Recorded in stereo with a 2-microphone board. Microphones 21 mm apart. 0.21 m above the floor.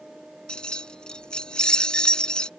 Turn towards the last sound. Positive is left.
turn(degrees=45)  # may be behind; listen again after turning